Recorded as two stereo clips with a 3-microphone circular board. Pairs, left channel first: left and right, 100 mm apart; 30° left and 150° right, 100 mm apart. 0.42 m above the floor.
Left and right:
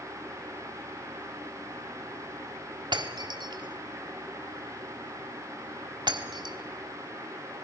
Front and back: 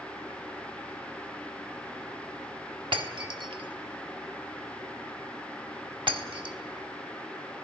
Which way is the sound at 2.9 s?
125° right.